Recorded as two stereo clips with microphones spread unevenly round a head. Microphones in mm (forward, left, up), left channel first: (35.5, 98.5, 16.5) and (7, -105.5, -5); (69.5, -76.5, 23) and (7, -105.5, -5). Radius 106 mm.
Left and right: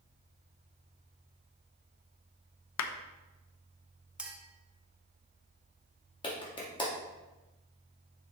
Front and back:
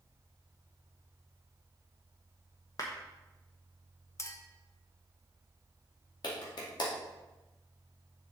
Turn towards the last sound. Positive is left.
turn(degrees=15)